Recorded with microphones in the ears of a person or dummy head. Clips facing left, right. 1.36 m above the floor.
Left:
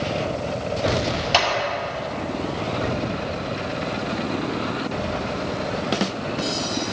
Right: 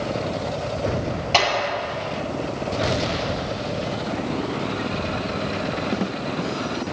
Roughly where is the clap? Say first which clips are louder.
Right 2 dB; centre.